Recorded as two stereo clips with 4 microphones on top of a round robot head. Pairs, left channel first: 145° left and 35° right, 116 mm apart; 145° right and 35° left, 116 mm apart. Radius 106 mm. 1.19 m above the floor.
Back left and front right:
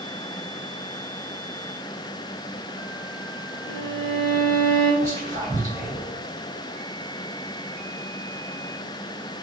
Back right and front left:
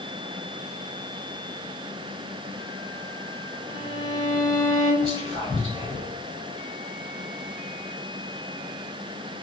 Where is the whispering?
90° left, 1.5 m.